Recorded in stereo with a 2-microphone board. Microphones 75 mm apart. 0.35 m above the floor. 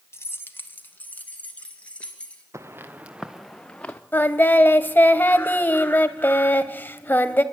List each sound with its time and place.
0.1 s keys jangling: 40° left (ahead or behind), 1.3 m; by 2.4 s 15° left (ahead or behind), 4 m
2.5 s footsteps: 40° right (ahead or behind), 1.6 m; by 4.0 s 20° left (ahead or behind), 1.9 m
4.1 s singing: 25° left (ahead or behind), 1.3 m